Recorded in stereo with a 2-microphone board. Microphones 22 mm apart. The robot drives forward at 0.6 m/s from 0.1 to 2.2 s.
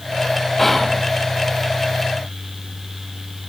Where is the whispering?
10° left (ahead or behind), 0.5 m; by 1.1 s 5° left (ahead or behind), 0.8 m.